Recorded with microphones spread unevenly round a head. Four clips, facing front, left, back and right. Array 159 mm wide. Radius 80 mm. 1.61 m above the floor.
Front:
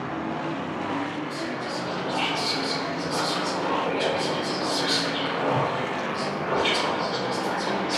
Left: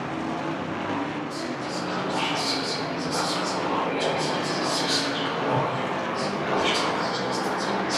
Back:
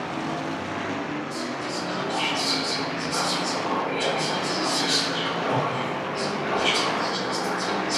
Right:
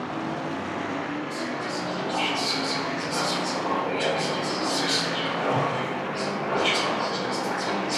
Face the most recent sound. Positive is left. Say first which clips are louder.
# even, even
turn(degrees=-15)